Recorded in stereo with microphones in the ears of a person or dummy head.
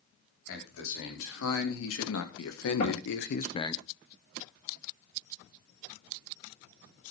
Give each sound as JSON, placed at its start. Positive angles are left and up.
{"t": 0.5, "sound": "a man speaking", "side_deg": 75, "distance_m": 4.5}
{"t": 2.8, "sound": "knocking", "side_deg": 50, "distance_m": 8.5}